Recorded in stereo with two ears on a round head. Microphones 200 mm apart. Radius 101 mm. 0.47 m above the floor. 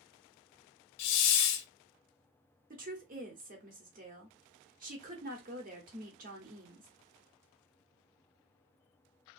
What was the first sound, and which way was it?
A hiss, 55° left (ahead or behind).